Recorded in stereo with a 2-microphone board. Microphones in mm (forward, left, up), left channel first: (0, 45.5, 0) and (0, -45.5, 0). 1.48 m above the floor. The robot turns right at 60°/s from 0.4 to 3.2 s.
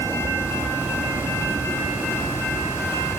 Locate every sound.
0.0 s an aircraft: 40° right (ahead or behind); by 3.2 s 10° left (ahead or behind)